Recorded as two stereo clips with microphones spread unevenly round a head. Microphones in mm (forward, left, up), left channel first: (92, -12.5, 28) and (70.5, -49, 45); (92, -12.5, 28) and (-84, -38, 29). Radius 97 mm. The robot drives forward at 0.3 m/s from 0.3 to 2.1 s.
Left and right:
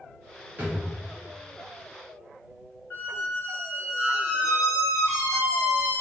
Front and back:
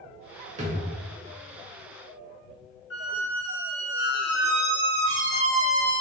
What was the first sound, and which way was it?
A drawer, 130° right.